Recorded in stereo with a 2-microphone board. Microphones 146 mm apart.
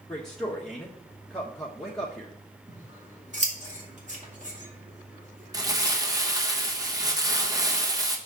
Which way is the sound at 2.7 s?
50° right (ahead or behind).